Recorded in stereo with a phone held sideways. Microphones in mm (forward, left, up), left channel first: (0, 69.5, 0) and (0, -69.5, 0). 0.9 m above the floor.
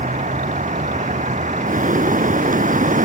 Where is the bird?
75° right (ahead or behind).